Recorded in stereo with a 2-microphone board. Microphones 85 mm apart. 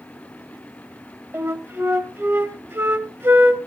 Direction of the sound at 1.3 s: 30° right (ahead or behind).